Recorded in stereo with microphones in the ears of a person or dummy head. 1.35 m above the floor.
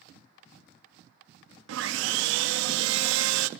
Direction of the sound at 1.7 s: 75° right (ahead or behind).